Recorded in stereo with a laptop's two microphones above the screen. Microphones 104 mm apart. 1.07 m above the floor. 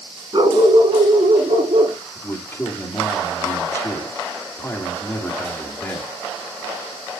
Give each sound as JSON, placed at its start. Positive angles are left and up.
{"t": 0.3, "sound": "a dog barking", "side_deg": -50, "distance_m": 5.0}
{"t": 2.1, "sound": "a man speaking", "side_deg": 20, "distance_m": 2.0}